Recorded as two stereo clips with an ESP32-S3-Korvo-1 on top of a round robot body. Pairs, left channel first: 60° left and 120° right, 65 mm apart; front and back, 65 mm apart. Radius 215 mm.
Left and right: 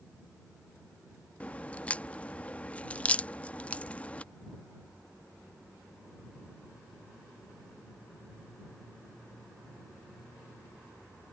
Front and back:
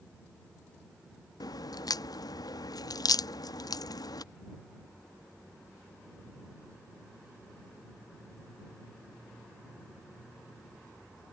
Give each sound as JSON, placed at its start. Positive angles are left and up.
{"t": 1.4, "sound": "a crack", "azimuth_deg": -10}